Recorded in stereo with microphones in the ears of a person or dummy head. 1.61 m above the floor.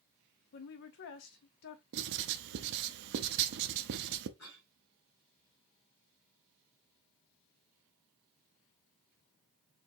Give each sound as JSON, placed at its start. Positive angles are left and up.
{"t": 0.5, "sound": "a woman speaking", "side_deg": 50, "distance_m": 0.7}
{"t": 1.9, "sound": "writing", "side_deg": -70, "distance_m": 0.6}
{"t": 4.4, "sound": "a cough", "side_deg": 65, "distance_m": 2.5}